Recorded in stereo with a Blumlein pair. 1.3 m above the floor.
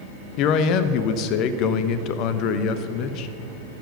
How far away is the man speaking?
About 0.9 m.